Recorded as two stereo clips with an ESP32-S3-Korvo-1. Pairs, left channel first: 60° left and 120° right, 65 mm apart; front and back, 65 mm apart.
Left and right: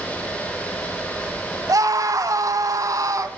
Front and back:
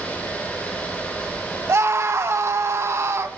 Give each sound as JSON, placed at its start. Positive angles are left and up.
{"t": 1.7, "sound": "a scream", "azimuth_deg": -140, "distance_m": 3.5}